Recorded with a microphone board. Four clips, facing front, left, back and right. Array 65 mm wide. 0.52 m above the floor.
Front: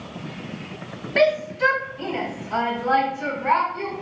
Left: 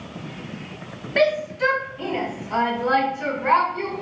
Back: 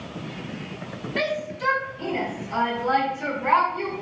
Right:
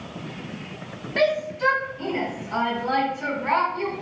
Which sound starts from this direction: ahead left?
A shout, at 1.2 s.